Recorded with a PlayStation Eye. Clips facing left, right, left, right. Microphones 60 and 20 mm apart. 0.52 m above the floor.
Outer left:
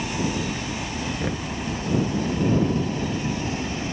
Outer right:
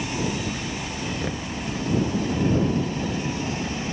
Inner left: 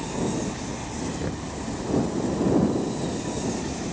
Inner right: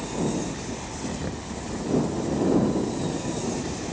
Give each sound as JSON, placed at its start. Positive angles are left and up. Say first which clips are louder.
{"t": 0.0, "sound": "a helicopter", "louder": "outer left 1 dB, even", "side_deg": 15}
{"t": 1.2, "sound": "knocking", "louder": "outer left 2 dB, inner left 2 dB", "side_deg": 5}